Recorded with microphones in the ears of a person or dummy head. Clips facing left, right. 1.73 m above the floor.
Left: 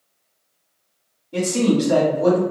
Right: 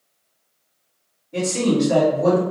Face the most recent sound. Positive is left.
turn(degrees=50)  # may be behind; listen again after turning